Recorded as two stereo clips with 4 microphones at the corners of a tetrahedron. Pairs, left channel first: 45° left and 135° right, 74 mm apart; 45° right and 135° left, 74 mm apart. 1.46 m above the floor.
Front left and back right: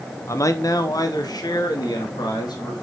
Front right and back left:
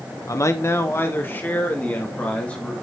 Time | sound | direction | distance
0.3 | a man speaking | straight ahead | 0.9 m